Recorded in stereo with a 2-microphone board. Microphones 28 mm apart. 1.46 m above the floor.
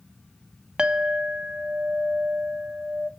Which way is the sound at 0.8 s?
35° right (ahead or behind).